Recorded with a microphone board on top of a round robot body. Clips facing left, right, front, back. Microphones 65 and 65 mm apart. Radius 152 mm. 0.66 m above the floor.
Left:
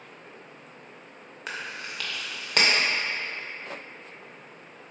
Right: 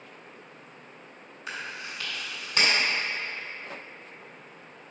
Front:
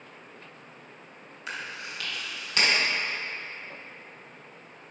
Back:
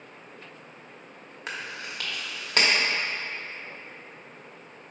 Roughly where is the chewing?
Behind left.